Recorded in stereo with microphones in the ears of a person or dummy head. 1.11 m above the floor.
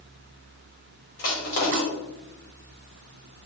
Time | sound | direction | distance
1.2 | crushing | 45° left (ahead or behind) | 1.7 m